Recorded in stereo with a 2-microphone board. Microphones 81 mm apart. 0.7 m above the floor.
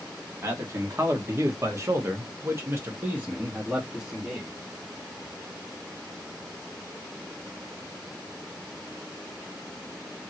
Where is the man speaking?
35° right (ahead or behind), 1.4 m; by 4.5 s 5° right (ahead or behind), 1.3 m.